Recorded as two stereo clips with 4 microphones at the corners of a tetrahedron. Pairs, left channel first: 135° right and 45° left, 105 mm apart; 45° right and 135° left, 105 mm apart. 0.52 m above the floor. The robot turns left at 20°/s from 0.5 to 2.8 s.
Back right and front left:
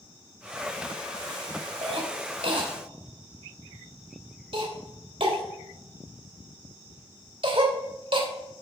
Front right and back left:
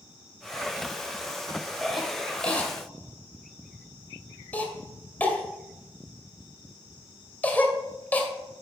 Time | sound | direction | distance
1.8 | a cough | 45° left | 2.5 m